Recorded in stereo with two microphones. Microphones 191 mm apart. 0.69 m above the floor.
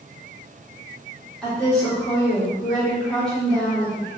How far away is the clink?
No clink in this recording.